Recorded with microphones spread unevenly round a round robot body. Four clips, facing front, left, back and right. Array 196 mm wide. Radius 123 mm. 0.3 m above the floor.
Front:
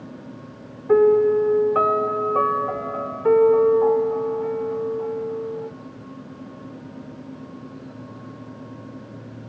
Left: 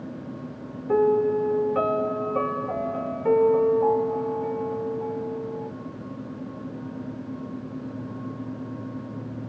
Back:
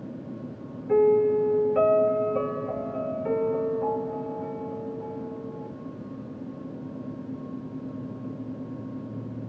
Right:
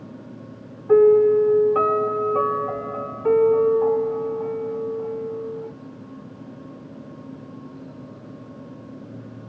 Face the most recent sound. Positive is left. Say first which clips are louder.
# right 7 dB, front 5 dB
turn(degrees=-20)